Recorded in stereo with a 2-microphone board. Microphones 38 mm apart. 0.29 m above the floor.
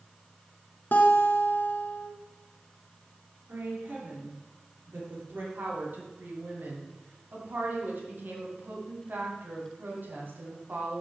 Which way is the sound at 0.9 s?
55° left (ahead or behind).